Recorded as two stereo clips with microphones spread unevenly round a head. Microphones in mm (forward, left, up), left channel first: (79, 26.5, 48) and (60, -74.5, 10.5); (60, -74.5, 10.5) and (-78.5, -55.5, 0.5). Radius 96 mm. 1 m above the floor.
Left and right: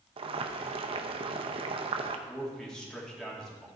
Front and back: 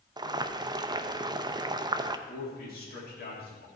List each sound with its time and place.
0.2 s boiling: 125° right, 0.6 m
2.3 s a man speaking: 10° right, 3 m